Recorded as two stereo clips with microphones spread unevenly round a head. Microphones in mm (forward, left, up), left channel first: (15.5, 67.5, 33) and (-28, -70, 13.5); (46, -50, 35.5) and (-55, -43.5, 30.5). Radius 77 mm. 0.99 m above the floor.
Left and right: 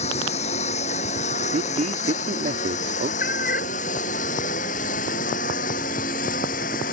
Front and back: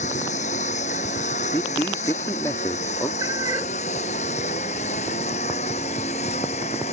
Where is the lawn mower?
25° left; by 6.9 s 35° left.